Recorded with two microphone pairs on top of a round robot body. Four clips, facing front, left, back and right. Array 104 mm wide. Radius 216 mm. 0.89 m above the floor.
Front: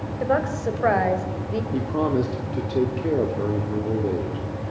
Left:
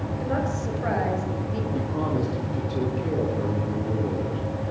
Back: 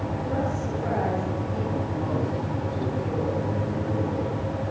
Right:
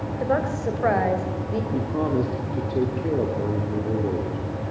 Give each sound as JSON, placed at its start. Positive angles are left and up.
{"t": 0.2, "sound": "a woman speaking", "azimuth_deg": -30, "distance_m": 5.5}
{"t": 1.7, "sound": "a man speaking", "azimuth_deg": -5, "distance_m": 3.5}